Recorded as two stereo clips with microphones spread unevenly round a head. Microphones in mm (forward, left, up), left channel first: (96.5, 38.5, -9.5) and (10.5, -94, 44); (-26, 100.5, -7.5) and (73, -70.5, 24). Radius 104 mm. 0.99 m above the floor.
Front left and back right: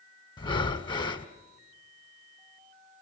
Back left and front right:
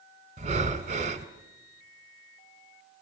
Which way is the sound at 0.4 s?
10° right.